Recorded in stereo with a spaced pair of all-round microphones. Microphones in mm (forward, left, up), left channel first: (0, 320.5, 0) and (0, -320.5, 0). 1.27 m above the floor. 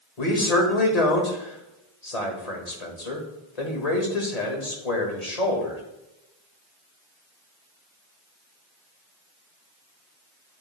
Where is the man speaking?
70° left (ahead or behind), 2.0 m.